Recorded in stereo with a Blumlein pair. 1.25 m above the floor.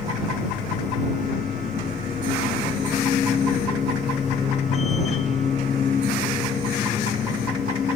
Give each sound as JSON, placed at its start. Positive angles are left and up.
{"t": 0.0, "sound": "a machine running", "azimuth_deg": 20}